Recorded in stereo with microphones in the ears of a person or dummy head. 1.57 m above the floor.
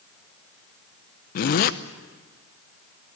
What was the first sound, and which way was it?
A zipper, 50° left (ahead or behind).